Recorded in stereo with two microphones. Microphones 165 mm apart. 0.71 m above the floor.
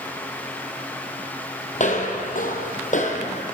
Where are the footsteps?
50° left (ahead or behind), 1.3 m; by 3.4 s 45° left (ahead or behind), 1.4 m.